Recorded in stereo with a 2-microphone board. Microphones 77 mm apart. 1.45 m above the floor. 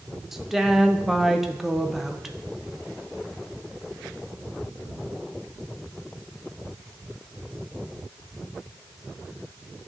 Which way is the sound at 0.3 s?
5° right (ahead or behind).